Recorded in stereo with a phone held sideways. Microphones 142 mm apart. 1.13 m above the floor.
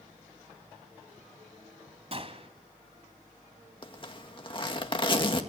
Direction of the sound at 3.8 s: 35° left (ahead or behind).